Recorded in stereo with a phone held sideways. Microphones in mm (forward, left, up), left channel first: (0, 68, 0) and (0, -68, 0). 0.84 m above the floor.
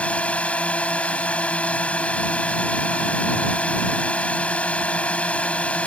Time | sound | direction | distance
0.0 | a drone | 10° left (ahead or behind) | ?